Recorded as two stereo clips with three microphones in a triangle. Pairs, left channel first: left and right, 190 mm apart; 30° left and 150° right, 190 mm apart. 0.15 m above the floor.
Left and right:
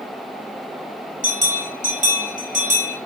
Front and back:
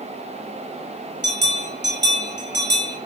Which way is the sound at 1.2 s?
135° right.